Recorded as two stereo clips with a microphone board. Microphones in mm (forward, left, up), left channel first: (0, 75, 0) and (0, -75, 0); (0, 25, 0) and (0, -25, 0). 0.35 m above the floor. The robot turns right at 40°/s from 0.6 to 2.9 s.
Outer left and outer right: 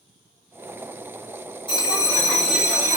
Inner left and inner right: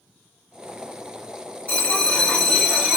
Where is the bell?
145° left, 2.0 m; by 3.0 s 165° right, 2.0 m.